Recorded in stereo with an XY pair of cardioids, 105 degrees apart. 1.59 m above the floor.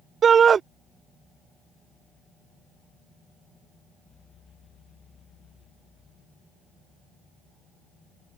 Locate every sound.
0.2 s a shout: 45° right